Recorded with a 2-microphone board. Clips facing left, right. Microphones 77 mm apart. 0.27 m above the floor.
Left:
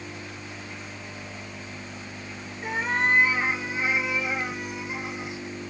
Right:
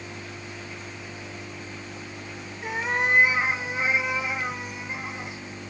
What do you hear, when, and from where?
2.6 s a cat meowing: centre (ahead or behind), 1.2 m; by 5.4 s 40° right (ahead or behind), 2.5 m